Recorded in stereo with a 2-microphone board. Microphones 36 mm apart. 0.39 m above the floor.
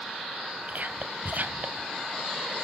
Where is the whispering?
50° right (ahead or behind), 1.8 m.